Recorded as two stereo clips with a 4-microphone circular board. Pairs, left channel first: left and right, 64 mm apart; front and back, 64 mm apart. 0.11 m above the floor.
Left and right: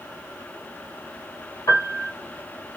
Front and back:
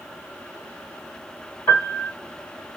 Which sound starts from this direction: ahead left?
A piano, at 1.7 s.